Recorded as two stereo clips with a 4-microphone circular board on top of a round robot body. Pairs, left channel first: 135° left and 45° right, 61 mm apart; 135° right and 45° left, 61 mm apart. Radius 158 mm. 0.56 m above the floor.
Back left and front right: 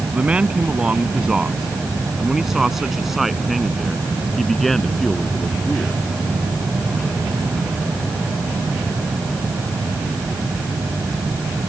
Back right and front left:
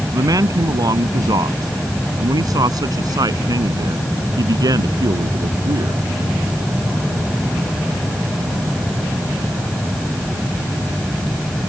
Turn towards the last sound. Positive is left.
turn(degrees=55)